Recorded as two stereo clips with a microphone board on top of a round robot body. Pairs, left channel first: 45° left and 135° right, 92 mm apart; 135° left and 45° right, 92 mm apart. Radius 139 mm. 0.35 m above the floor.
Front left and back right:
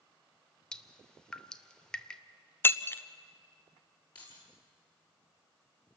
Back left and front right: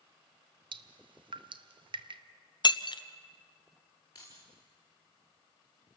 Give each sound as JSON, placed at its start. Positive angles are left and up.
{"t": 0.7, "sound": "dripping", "azimuth_deg": -35, "distance_m": 1.0}
{"t": 2.6, "sound": "breaking glass", "azimuth_deg": 110, "distance_m": 0.7}
{"t": 4.2, "sound": "keys jangling", "azimuth_deg": 85, "distance_m": 7.0}